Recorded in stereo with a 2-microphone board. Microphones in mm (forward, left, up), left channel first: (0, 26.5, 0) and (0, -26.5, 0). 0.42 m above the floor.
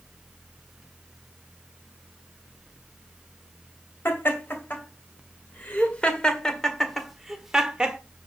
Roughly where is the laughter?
Left.